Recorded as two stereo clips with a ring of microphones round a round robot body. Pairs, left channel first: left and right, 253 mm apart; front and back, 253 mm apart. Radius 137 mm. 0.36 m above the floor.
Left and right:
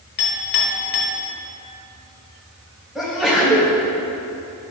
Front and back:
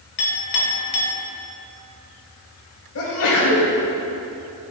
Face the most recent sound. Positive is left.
turn(degrees=0)